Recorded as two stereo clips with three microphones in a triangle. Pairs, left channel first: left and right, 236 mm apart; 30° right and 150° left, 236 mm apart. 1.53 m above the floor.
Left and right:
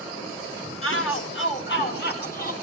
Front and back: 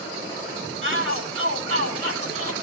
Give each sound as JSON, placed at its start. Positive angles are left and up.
{"t": 0.8, "sound": "a shout", "azimuth_deg": 115, "distance_m": 5.0}